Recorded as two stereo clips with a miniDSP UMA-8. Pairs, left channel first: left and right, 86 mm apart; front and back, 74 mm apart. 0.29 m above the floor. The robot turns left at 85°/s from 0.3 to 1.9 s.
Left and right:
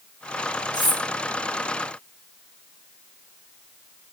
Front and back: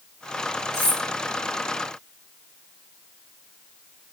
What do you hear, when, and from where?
0.7 s cutlery clinking: 130° left, 5 m; by 1.0 s 105° left, 5 m